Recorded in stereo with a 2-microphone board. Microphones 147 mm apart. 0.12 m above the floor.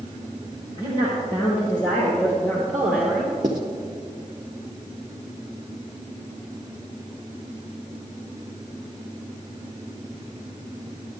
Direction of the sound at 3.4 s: 35° right (ahead or behind).